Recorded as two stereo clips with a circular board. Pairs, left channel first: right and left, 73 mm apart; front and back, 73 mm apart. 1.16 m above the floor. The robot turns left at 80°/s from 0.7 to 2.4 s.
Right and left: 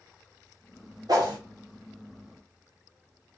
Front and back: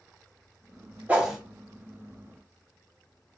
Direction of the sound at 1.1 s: 110° left.